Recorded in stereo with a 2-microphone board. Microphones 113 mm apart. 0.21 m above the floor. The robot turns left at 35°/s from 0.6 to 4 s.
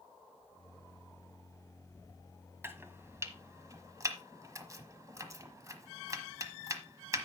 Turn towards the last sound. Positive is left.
turn(degrees=-30)  # may be behind; listen again after turning